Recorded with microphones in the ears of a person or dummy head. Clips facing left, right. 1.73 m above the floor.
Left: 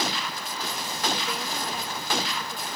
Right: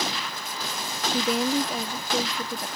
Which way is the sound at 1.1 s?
60° right (ahead or behind).